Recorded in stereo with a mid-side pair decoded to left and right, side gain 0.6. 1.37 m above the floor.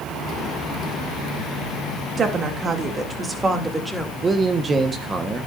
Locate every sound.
2.2 s a woman speaking: 45° right, 3 m; by 4.1 s 15° right, 3 m
4.2 s a man speaking: 30° right, 1.4 m